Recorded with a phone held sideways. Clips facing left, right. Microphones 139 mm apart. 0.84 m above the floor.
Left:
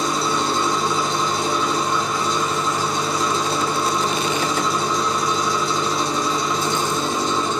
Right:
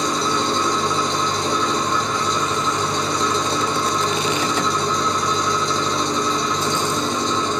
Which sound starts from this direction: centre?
An engine running, at 0.0 s.